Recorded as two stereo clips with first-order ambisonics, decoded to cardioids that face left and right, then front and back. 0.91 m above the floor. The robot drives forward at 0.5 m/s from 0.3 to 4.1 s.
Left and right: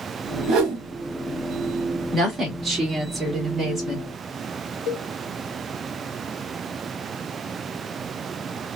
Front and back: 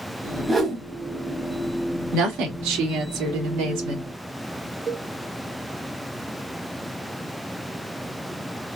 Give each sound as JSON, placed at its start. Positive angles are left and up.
{"t": 0.5, "sound": "a whoosh", "azimuth_deg": -100, "distance_m": 1.0}
{"t": 2.1, "sound": "a woman speaking", "azimuth_deg": -165, "distance_m": 1.8}
{"t": 4.9, "sound": "a cowbell", "azimuth_deg": 120, "distance_m": 1.5}